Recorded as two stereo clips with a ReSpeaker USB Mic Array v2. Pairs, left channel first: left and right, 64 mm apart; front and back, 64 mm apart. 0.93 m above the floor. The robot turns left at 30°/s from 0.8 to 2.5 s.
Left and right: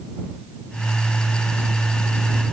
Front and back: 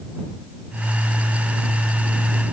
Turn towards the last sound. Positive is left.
No sound to turn to.